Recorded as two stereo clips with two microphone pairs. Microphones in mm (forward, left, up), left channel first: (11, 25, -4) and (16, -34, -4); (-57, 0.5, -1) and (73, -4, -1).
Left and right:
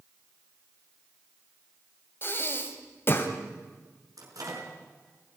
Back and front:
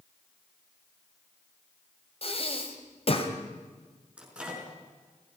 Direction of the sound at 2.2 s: 140° left.